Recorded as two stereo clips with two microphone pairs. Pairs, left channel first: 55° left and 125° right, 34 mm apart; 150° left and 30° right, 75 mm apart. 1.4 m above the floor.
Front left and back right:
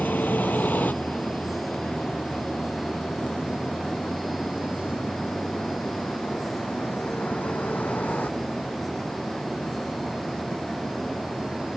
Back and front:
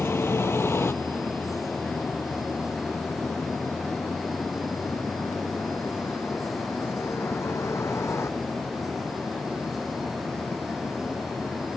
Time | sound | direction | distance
0.0 | a vehicle | 90° left | ?